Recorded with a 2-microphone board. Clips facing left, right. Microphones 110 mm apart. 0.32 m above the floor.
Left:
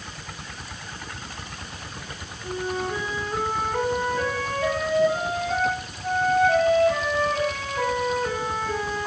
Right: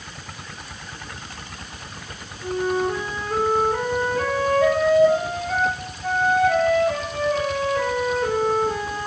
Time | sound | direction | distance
2.4 | a flute | 75° right (ahead or behind) | 4.5 m